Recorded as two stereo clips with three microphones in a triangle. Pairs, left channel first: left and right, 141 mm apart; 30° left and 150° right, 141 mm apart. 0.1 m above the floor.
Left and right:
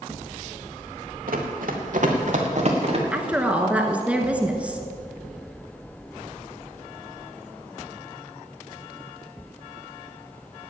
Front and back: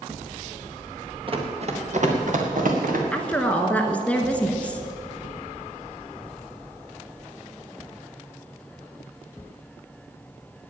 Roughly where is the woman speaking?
Ahead right.